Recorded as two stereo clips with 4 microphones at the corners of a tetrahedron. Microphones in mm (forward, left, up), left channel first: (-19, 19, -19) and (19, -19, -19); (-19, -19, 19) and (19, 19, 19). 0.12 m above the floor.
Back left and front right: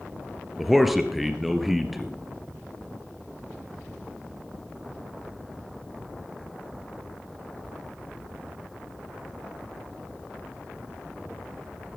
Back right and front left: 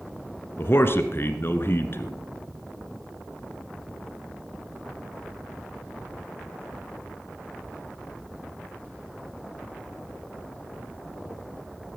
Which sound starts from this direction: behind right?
A man speaking, at 0.6 s.